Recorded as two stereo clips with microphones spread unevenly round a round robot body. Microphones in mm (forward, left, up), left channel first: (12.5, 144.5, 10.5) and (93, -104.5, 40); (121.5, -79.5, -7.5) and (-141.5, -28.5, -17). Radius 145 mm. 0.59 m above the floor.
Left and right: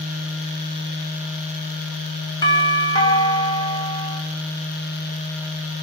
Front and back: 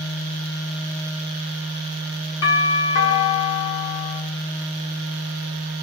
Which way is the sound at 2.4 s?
35° left.